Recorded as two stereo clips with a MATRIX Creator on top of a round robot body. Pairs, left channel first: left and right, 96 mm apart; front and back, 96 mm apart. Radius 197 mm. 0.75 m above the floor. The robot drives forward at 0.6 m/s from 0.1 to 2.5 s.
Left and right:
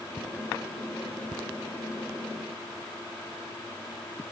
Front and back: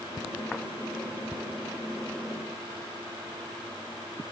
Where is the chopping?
No chopping in this recording.